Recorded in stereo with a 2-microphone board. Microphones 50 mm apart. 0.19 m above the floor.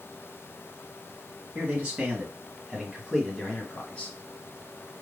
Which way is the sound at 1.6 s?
30° right (ahead or behind).